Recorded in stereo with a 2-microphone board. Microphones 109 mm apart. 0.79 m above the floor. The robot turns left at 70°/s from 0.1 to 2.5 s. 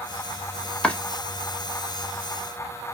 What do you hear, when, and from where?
0.8 s chopping: 10° left (ahead or behind), 0.8 m; by 1.0 s 15° left (ahead or behind), 0.8 m